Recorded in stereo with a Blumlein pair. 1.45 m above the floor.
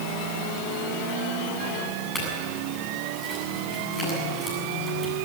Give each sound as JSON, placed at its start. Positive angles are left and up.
{"t": 2.1, "sound": "a clink", "azimuth_deg": 15, "distance_m": 8.0}